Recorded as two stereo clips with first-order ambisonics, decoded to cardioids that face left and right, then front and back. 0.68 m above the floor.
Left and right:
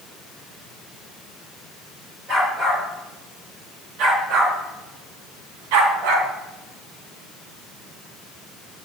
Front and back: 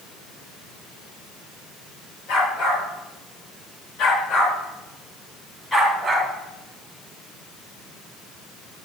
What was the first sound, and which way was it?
A dog barking, 35° right.